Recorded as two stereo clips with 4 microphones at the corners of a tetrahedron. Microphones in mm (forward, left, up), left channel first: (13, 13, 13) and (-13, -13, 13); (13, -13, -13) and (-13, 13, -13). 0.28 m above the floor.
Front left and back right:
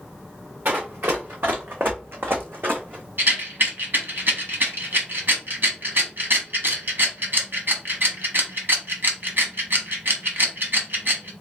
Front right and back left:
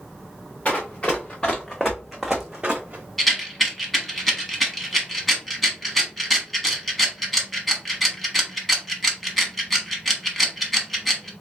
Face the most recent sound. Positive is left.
turn(degrees=-135)